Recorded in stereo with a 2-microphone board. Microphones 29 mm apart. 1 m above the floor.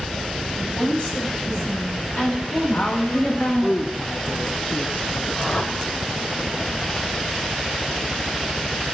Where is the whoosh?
45° left (ahead or behind), 2.0 m.